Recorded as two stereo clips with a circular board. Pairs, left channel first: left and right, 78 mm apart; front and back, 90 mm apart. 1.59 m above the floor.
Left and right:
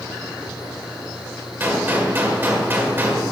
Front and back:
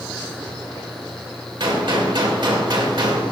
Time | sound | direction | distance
1.6 | a gunshot | 150° right | 1.6 m